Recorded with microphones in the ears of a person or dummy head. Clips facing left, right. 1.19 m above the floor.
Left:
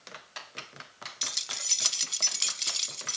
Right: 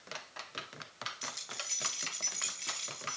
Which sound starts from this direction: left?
Keys jangling, at 1.2 s.